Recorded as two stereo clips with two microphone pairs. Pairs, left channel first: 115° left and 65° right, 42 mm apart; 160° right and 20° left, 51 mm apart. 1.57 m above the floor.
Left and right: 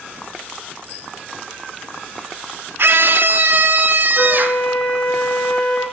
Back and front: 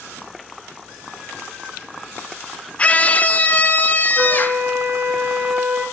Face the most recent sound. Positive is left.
turn(degrees=45)